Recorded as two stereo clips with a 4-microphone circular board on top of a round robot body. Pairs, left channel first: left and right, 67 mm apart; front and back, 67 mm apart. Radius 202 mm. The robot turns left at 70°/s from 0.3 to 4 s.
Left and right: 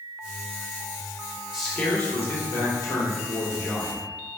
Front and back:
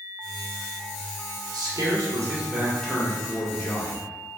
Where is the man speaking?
175° right, 1.6 m; by 4.1 s 10° left, 1.6 m.